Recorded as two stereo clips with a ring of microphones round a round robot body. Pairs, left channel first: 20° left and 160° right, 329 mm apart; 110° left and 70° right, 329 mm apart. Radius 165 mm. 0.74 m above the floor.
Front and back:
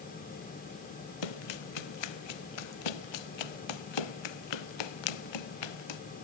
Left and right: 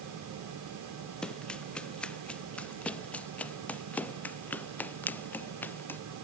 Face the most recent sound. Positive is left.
turn(degrees=30)